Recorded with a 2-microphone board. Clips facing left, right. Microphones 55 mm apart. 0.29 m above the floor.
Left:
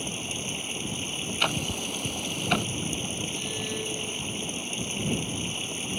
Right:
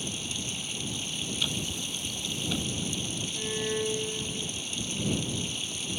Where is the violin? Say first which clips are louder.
Right 2 dB; 25° right (ahead or behind).